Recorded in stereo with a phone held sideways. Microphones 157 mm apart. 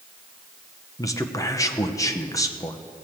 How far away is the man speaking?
About 0.8 m.